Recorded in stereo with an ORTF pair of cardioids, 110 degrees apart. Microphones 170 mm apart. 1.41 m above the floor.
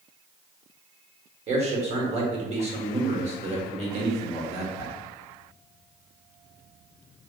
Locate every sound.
1.5 s a man speaking: 40° right, 1.5 m